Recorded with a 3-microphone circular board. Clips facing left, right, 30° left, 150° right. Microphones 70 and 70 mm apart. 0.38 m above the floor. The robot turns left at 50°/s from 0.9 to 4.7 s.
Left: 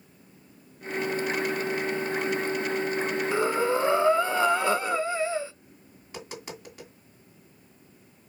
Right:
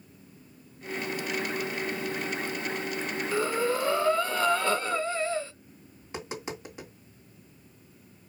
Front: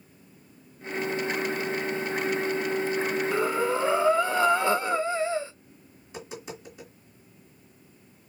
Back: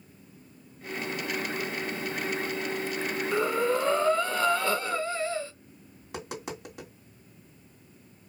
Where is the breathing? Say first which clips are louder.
Left 2 dB, back 2 dB; 120° left, 0.6 m; by 5.5 s 50° left, 0.6 m.